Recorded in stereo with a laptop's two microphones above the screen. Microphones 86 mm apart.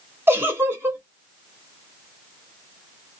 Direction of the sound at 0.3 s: 25° right (ahead or behind).